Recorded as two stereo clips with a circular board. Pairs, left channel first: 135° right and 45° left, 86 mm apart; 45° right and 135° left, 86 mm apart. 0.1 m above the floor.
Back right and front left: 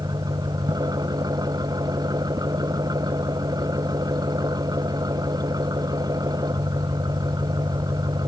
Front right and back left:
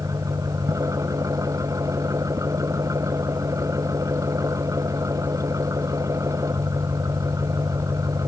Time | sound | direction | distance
0.0 | an engine running | 85° left | ?